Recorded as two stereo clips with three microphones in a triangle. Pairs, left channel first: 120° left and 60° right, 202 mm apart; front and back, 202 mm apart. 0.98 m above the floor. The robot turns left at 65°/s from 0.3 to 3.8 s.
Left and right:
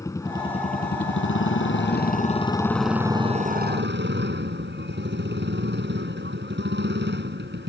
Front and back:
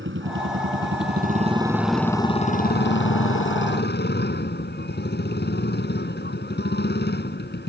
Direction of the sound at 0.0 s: 165° right.